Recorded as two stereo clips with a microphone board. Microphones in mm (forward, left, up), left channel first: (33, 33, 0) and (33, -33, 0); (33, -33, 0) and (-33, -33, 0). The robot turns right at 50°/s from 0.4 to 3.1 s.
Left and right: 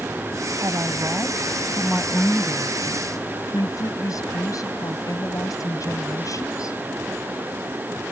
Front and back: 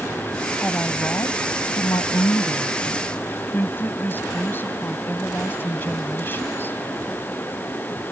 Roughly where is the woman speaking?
Ahead right.